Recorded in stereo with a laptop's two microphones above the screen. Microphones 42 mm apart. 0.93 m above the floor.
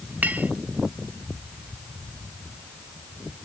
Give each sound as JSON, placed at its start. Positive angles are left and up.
{"t": 0.2, "sound": "a clink", "side_deg": -45}